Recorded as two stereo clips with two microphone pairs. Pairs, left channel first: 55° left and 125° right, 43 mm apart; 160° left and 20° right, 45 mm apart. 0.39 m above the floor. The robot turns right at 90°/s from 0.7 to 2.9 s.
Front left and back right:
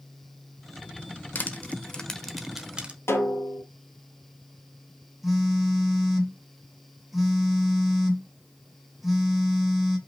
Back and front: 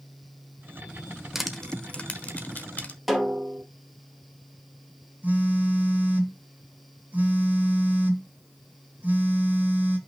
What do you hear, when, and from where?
1.4 s crushing: 60° left, 1.2 m; by 3.0 s 160° right, 1.2 m
3.1 s a snare drum: 70° left, 2 m
5.2 s a phone buzzing: 40° right, 1.9 m